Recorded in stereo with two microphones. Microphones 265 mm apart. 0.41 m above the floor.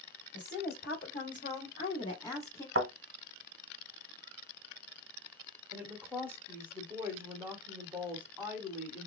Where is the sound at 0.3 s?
45° left (ahead or behind), 1.7 m; by 2.6 s 10° left (ahead or behind), 1.5 m.